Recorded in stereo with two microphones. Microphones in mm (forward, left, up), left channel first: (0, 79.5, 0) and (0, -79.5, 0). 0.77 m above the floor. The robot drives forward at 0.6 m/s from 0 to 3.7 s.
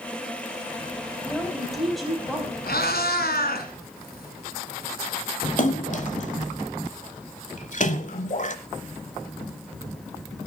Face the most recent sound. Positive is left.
turn(degrees=50)  # may be behind; listen again after turning